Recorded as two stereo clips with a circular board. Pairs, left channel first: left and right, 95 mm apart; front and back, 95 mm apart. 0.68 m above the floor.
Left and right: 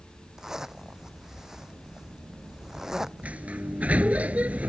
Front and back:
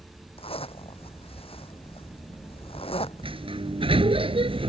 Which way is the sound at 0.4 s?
5° right.